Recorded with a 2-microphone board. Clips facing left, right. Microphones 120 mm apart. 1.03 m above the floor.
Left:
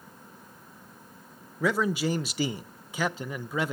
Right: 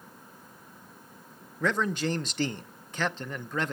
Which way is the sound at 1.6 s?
10° left (ahead or behind).